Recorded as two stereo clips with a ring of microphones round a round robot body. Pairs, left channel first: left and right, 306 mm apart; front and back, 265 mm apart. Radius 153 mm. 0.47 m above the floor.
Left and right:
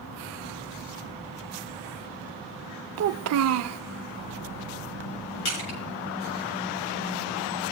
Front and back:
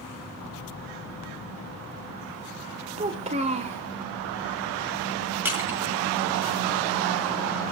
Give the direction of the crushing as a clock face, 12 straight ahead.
9 o'clock.